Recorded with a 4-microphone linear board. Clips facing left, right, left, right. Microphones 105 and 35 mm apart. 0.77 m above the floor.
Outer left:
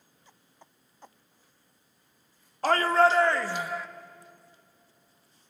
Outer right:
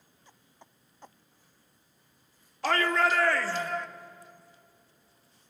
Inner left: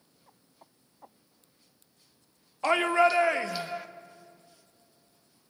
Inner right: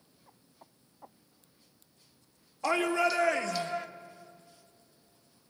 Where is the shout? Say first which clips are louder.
Outer left 4 dB, inner left 5 dB; 40° left (ahead or behind), 1.3 m; by 3.9 s 5° left (ahead or behind), 1.1 m.